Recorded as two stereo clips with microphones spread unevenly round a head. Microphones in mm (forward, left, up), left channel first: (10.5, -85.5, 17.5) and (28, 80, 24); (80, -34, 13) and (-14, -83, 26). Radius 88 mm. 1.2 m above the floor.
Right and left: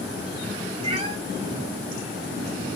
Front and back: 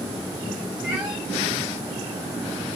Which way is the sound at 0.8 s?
135° left.